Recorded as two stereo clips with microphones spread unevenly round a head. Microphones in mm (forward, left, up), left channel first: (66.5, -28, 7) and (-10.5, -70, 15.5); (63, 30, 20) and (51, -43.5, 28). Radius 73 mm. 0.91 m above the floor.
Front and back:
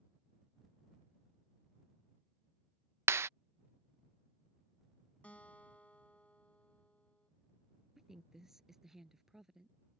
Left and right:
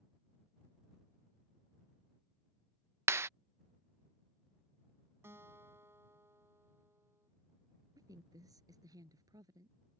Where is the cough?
No cough in this recording.